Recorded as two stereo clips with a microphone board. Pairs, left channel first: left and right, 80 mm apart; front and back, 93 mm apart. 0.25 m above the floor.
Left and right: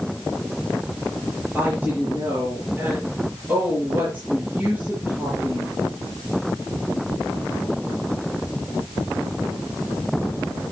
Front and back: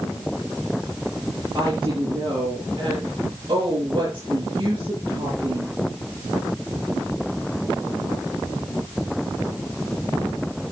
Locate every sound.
1.6 s a woman speaking: 155° right, 6 m